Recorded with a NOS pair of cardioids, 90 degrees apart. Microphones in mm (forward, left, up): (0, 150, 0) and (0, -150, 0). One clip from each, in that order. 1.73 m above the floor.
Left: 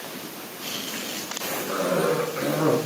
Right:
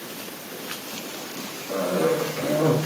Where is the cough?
65° left, 1.7 m.